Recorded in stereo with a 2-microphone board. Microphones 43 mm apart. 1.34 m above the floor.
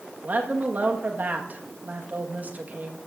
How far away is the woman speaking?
About 1.4 m.